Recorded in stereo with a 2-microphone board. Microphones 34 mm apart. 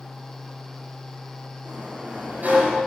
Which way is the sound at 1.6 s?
55° right (ahead or behind).